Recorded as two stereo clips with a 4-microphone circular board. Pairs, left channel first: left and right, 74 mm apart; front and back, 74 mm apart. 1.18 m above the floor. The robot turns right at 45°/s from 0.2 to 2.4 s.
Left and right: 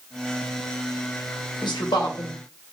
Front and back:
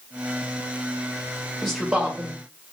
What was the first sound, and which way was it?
A man speaking, 85° left.